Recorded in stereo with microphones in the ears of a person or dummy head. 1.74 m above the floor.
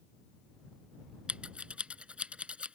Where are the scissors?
10° right (ahead or behind).